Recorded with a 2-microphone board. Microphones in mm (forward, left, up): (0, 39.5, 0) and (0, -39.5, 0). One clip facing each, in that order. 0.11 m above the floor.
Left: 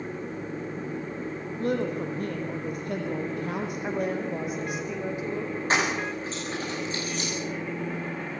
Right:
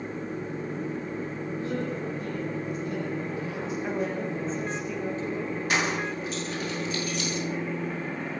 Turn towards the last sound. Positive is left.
turn(degrees=35)  # may be behind; listen again after turning